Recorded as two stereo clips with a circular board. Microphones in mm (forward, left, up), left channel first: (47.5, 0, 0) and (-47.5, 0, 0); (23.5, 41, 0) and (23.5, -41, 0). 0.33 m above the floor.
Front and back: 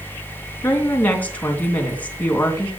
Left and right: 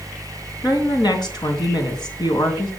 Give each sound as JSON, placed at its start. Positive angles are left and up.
{"t": 0.6, "sound": "a woman speaking", "azimuth_deg": 70, "distance_m": 3.0}